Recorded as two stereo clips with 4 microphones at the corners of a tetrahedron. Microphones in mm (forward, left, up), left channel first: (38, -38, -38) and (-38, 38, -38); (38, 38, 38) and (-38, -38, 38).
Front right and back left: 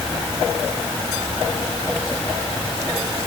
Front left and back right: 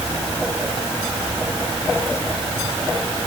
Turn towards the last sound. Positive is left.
No sound to turn to.